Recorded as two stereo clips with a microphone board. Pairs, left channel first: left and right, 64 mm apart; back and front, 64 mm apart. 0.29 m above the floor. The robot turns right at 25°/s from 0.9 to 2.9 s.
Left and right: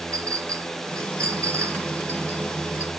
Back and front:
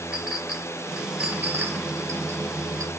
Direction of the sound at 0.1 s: 70° right.